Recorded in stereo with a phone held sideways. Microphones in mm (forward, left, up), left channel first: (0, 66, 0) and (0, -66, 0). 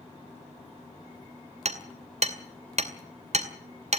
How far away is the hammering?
About 2.5 m.